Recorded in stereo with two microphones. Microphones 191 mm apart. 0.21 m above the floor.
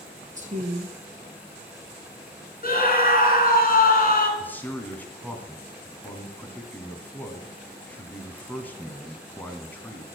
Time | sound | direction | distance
0.3 | a woman speaking | 40° right (ahead or behind) | 2 m
2.6 | a scream | 50° left (ahead or behind) | 2.5 m
4.4 | a man speaking | 10° left (ahead or behind) | 1.6 m